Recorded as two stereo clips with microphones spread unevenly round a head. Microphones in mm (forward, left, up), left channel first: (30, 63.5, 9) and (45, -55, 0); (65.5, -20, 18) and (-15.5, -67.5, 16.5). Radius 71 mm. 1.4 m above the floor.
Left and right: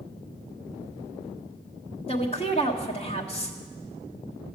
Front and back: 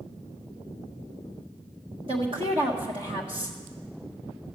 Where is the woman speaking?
155° left, 1.5 m.